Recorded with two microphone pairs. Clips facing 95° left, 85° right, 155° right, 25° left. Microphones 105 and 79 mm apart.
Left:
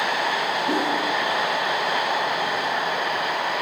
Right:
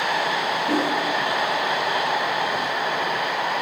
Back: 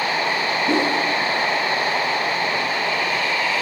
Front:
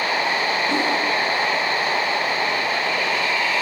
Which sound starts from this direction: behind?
A whoosh, at 0.7 s.